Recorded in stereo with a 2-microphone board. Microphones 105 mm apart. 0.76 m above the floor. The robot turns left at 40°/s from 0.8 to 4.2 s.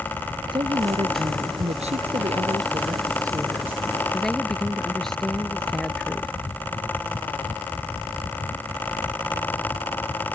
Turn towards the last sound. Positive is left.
turn(degrees=175)